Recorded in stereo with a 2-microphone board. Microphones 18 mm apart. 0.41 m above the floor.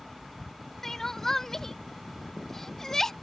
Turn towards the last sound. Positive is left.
turn(degrees=25)  # may be behind; listen again after turning